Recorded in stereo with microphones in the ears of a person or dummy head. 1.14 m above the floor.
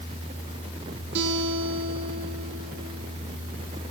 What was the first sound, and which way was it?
A guitar, 60° right (ahead or behind).